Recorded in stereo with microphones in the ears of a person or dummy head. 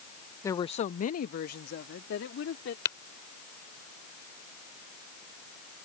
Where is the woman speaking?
20° left (ahead or behind); by 2.8 s 70° left (ahead or behind).